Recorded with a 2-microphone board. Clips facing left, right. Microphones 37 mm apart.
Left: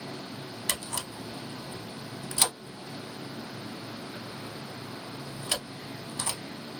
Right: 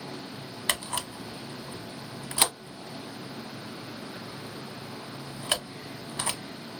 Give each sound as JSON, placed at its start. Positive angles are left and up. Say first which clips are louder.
{"t": 0.7, "sound": "a camera shutter", "louder": "right 4 dB", "side_deg": -35, "distance_m": 0.6}